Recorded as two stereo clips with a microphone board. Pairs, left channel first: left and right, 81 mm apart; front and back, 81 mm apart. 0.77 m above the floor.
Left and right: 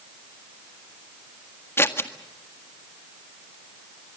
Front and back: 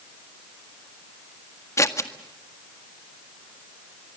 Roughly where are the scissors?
Ahead left.